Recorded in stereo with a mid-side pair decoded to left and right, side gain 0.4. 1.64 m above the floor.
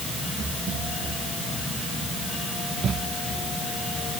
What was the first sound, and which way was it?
Only background noise.